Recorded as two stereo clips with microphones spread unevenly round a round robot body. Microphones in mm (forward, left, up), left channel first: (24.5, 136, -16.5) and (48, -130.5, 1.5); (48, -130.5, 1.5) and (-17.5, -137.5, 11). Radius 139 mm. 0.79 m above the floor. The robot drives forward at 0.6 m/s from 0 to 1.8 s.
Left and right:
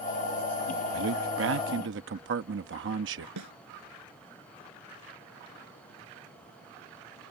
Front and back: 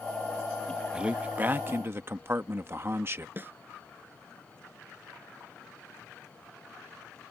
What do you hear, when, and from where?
0.9 s a man speaking: 95° right; by 3.3 s 125° right
3.4 s a snare drum: 115° right